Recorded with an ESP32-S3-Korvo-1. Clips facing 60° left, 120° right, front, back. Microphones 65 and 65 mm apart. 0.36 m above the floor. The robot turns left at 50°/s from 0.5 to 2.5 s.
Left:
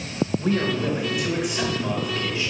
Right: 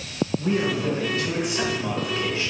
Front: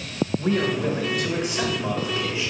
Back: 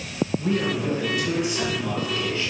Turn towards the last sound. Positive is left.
turn(degrees=-75)